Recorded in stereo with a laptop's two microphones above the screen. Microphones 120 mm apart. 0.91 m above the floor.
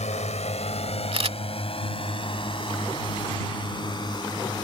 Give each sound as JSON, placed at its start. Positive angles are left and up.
{"t": 0.0, "sound": "a drone", "side_deg": 65}
{"t": 1.1, "sound": "a camera shutter", "side_deg": -50}